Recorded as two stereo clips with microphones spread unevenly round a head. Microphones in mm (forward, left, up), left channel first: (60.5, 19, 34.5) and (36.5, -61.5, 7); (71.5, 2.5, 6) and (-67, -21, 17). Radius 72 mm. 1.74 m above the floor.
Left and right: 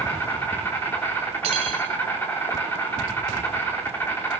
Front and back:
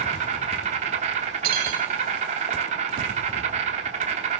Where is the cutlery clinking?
150° right, 4 m.